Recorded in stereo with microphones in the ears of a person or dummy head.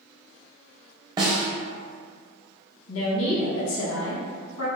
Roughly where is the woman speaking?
Left.